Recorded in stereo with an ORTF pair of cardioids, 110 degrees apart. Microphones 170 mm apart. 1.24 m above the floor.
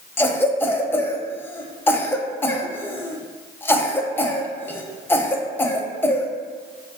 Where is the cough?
15° left, 0.6 m.